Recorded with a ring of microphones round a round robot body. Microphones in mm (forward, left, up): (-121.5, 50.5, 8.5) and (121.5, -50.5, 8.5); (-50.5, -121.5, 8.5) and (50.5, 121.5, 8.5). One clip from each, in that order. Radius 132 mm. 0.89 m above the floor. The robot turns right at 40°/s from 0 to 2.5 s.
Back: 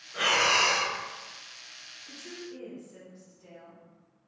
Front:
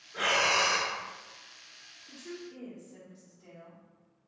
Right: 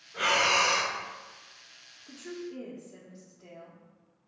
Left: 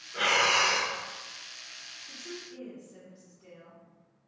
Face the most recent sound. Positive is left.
turn(degrees=-105)